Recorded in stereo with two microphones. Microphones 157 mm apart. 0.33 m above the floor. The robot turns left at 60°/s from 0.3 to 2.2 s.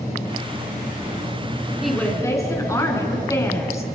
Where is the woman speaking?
5° right (ahead or behind), 4 m; by 3.9 s 20° left (ahead or behind), 4 m.